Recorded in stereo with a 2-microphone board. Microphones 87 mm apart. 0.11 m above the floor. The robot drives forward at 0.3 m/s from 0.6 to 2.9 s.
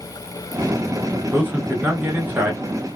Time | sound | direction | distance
1.3 | a man speaking | 25° right (ahead or behind) | 1.1 m